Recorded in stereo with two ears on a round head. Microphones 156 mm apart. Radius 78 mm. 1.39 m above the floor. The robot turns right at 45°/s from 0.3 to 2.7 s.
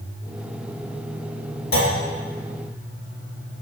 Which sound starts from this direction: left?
A clunk, at 1.7 s.